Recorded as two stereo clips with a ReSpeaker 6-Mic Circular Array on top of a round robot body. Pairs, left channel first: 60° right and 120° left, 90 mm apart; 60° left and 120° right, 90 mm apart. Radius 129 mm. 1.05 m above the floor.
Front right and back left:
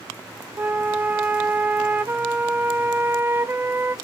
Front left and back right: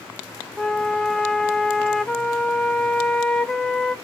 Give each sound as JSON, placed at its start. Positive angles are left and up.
{"t": 0.6, "sound": "a flute", "azimuth_deg": 135, "distance_m": 0.6}